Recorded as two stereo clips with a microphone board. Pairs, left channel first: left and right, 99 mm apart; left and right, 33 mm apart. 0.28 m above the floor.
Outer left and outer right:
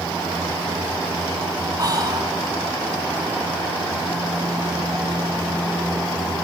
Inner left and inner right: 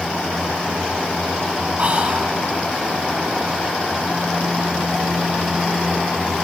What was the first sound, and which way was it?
Whispering, 40° right (ahead or behind).